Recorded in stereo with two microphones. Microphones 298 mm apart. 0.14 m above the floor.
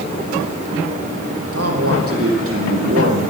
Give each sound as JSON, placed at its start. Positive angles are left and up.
{"t": 1.5, "sound": "a man speaking", "side_deg": -50, "distance_m": 5.0}